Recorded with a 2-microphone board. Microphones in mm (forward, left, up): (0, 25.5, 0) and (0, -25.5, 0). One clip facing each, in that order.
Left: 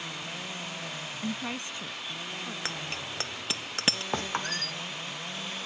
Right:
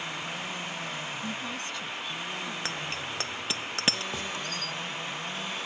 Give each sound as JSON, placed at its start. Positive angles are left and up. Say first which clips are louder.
{"t": 1.2, "sound": "a woman speaking", "louder": "even", "side_deg": 40}
{"t": 2.6, "sound": "a bicycle bell", "louder": "right 2 dB", "side_deg": 0}
{"t": 4.1, "sound": "a squeak", "louder": "left 3 dB", "side_deg": 50}